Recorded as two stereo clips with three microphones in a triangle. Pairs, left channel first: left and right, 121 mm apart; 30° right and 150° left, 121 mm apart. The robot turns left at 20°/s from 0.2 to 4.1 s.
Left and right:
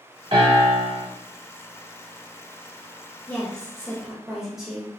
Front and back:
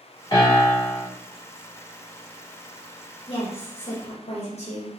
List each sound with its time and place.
0.3 s a piano: 75° right, 1.8 m; by 1.1 s 90° right, 1.8 m
3.3 s a woman speaking: 15° left, 1.0 m; by 4.9 s 5° right, 1.0 m